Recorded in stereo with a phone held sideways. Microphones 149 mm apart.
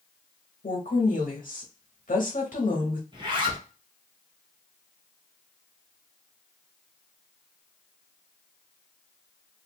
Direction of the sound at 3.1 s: 35° right (ahead or behind).